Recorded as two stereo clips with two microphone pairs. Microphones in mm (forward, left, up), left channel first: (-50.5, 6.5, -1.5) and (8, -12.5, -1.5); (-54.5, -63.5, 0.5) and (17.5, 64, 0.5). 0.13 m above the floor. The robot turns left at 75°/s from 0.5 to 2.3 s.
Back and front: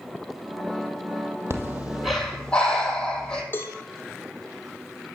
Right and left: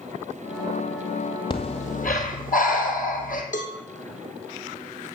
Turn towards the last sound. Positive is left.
turn(degrees=-145)